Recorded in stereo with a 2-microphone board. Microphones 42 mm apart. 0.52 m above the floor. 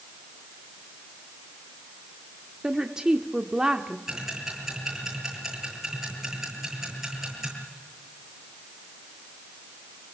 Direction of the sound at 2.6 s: 15° right (ahead or behind).